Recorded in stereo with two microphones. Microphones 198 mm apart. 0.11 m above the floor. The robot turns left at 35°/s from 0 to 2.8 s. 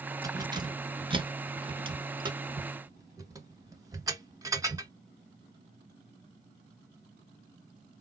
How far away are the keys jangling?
About 0.8 m.